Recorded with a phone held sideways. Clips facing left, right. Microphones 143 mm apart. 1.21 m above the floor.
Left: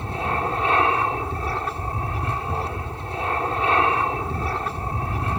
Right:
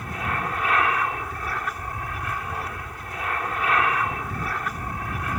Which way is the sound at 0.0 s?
30° left (ahead or behind).